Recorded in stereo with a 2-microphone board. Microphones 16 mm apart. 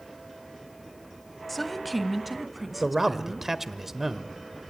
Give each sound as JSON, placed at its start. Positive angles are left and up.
{"t": 1.5, "sound": "a woman speaking", "side_deg": 10, "distance_m": 1.3}
{"t": 2.8, "sound": "a man speaking", "side_deg": -15, "distance_m": 1.3}